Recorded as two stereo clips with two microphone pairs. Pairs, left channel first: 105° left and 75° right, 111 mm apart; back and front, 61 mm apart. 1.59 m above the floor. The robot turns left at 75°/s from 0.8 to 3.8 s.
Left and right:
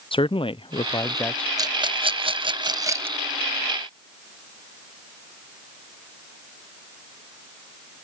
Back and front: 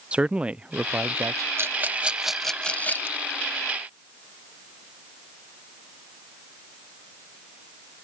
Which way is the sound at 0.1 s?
70° left.